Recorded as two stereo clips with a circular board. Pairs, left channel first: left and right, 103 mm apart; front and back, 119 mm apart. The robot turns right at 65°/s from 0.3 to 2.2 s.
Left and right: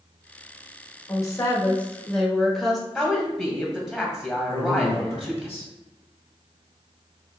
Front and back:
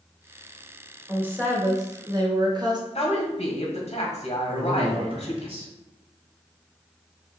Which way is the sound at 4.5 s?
150° left.